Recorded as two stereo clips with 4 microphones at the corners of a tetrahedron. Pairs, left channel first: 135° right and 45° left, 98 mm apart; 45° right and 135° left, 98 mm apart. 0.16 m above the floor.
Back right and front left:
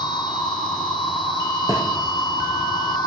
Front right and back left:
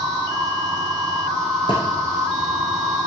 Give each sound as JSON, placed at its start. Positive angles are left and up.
{"t": 0.0, "sound": "an insect", "azimuth_deg": -175, "distance_m": 1.7}
{"t": 1.7, "sound": "a thud", "azimuth_deg": -80, "distance_m": 3.0}